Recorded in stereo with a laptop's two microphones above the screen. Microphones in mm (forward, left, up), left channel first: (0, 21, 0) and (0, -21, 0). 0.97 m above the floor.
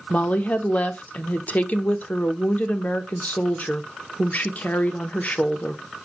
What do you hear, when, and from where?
0.1 s a woman speaking: 40° left (ahead or behind), 0.5 m